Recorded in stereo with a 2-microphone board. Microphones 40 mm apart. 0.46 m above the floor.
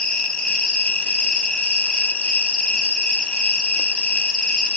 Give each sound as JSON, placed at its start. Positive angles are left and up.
{"t": 0.0, "sound": "an insect", "side_deg": 25, "distance_m": 0.7}